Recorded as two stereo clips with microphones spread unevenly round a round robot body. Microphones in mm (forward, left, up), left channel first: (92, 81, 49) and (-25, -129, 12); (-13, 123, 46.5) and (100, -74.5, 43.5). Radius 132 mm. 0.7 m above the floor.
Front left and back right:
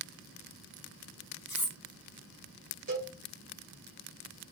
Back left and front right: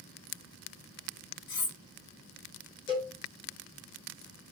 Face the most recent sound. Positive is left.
turn(degrees=-170)